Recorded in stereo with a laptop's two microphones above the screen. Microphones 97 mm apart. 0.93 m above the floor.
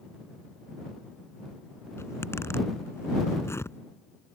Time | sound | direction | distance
2.0 | a zipper | 25° left (ahead or behind) | ?